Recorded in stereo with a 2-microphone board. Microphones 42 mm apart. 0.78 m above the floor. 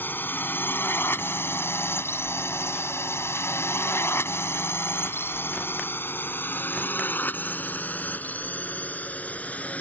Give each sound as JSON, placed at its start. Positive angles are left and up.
{"t": 0.0, "sound": "a drone", "side_deg": 50}